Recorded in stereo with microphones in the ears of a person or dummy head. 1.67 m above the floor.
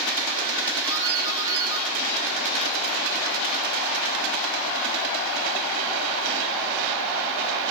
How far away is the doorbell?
About 7.5 m.